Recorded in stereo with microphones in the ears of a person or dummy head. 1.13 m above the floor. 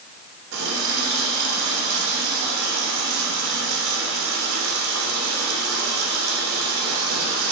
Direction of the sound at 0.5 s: 75° right (ahead or behind).